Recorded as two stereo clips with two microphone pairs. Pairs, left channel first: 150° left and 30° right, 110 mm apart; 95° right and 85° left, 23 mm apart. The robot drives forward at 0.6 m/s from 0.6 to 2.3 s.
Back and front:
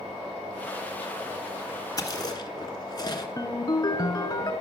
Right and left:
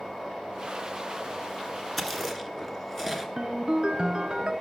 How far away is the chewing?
About 1.1 m.